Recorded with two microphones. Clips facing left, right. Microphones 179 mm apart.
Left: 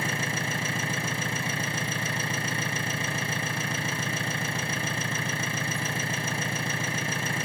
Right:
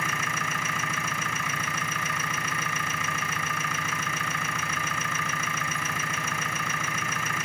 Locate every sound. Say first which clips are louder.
0.0 s an engine running: left 2 dB; 30° left (ahead or behind), 1.3 m